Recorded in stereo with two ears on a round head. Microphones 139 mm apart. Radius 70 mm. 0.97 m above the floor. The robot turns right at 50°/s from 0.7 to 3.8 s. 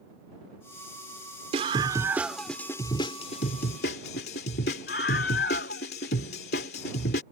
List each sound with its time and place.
1.5 s a scream: 45° right; by 7.2 s 70° left